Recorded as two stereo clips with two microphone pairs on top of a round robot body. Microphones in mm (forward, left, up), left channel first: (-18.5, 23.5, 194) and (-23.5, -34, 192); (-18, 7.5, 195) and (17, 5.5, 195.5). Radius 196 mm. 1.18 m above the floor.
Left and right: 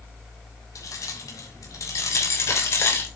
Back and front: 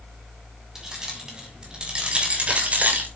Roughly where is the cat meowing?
I don't hear a cat meowing.